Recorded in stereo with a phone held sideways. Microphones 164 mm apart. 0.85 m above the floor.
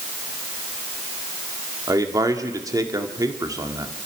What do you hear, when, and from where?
1.9 s a man speaking: 20° right (ahead or behind), 2.0 m